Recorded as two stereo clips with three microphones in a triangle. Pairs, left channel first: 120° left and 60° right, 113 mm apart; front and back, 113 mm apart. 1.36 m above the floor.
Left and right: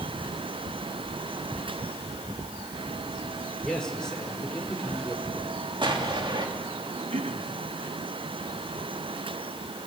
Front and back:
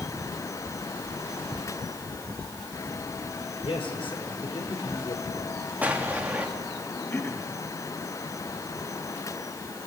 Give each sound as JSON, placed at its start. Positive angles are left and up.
{"t": 3.6, "sound": "a man speaking", "azimuth_deg": 35, "distance_m": 5.5}
{"t": 5.8, "sound": "an explosion", "azimuth_deg": -105, "distance_m": 2.5}
{"t": 7.1, "sound": "throat clearing", "azimuth_deg": -70, "distance_m": 2.5}